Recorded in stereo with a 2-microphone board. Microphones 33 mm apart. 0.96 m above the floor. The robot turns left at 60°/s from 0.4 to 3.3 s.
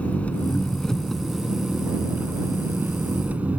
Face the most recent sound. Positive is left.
turn(degrees=-130)